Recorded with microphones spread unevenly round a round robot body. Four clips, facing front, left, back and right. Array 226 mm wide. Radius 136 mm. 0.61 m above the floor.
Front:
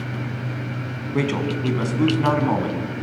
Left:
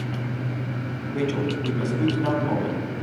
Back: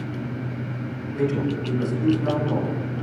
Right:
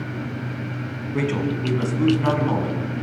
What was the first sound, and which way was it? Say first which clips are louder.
A man speaking: right 2 dB, front 1 dB; 15° right.